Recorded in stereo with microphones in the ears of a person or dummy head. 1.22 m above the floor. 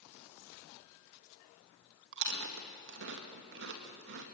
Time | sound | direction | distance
2.1 | chewing | 45° right (ahead or behind) | 2 m